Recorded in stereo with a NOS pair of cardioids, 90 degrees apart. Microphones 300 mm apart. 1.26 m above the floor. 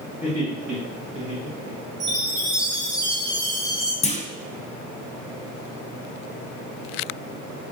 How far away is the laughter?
About 1.2 m.